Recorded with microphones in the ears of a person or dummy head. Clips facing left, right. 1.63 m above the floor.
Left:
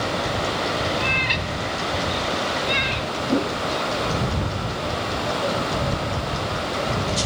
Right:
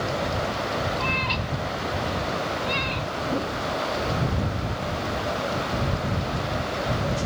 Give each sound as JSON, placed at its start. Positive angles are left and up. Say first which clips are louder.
{"t": 1.0, "sound": "a cat meowing", "louder": "left 2 dB", "side_deg": 25}
{"t": 3.3, "sound": "a whoosh", "louder": "left 7 dB", "side_deg": 35}